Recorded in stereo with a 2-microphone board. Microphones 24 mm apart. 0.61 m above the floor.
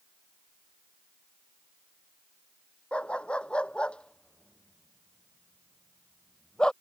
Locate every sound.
2.9 s a dog barking: 50° left (ahead or behind); by 6.7 s 35° left (ahead or behind)